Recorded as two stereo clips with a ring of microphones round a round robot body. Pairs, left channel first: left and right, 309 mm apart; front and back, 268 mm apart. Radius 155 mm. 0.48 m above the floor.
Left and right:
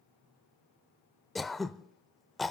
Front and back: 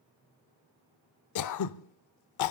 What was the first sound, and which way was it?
Throat clearing, straight ahead.